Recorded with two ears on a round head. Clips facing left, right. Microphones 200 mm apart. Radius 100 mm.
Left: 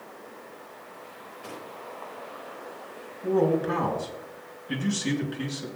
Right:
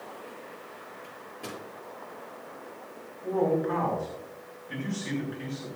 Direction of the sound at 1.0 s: 75° right (ahead or behind).